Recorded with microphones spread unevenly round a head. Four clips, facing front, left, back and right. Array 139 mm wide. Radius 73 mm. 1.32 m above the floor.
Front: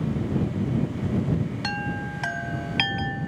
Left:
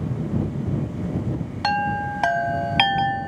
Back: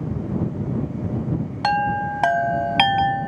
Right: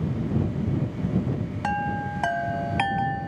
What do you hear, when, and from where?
1.6 s a chime: 160° left